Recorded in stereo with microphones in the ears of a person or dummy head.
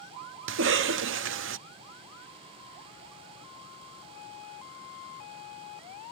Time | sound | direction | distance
0.5 | a cough | 60° right (ahead or behind) | 0.5 m